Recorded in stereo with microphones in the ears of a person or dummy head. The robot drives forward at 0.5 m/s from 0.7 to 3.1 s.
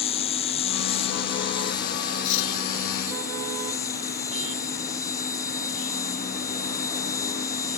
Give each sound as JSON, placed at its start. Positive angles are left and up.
{"t": 0.0, "sound": "an insect", "side_deg": 25}
{"t": 2.2, "sound": "cutlery clinking", "side_deg": 70}